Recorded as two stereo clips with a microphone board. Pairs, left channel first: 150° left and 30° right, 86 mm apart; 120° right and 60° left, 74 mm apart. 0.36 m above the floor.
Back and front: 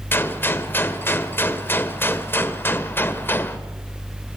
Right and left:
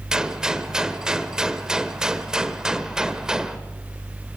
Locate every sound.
0.1 s a gunshot: 130° left, 1.2 m